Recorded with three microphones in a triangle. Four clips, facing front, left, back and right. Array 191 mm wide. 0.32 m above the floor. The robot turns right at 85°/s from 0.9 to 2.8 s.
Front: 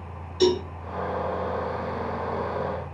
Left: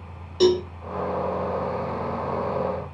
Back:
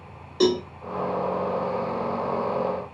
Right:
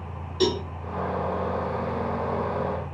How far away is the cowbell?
About 1.0 m.